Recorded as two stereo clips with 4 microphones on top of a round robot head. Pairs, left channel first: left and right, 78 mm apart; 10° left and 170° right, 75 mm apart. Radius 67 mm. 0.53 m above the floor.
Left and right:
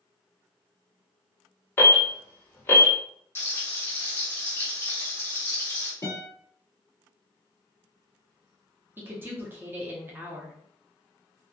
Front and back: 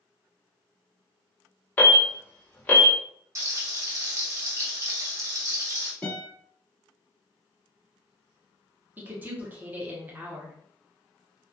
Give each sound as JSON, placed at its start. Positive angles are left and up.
{"t": 1.8, "sound": "an alarm", "azimuth_deg": 55, "distance_m": 1.2}
{"t": 3.4, "sound": "frying", "azimuth_deg": 145, "distance_m": 0.9}
{"t": 6.0, "sound": "a guitar", "azimuth_deg": 75, "distance_m": 1.6}
{"t": 9.0, "sound": "a woman speaking", "azimuth_deg": -130, "distance_m": 0.9}